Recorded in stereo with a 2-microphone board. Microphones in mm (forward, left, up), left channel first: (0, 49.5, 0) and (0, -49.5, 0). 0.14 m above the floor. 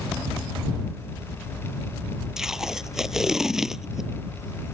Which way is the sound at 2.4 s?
5° right (ahead or behind).